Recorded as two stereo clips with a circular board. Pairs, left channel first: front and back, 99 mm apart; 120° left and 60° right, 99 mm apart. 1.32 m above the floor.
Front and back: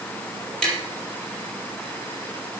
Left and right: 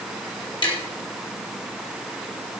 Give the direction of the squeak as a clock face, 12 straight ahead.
I don't hear a squeak.